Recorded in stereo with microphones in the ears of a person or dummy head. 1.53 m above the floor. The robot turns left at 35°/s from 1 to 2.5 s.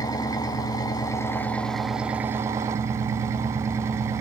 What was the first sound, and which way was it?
An engine running, 30° left.